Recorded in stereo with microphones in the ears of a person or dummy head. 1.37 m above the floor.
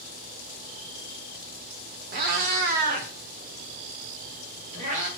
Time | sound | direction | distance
2.1 | a cat meowing | 50° right (ahead or behind) | 1.3 m